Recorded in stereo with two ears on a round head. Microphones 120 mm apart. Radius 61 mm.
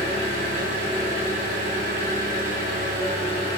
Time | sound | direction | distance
0.0 | an engine running | 65° right (ahead or behind) | 1.2 m